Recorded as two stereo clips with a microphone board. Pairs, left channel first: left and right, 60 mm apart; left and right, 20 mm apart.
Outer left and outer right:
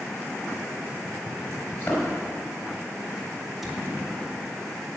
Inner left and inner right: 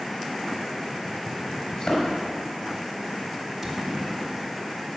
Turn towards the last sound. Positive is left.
turn(degrees=-5)  # may be behind; listen again after turning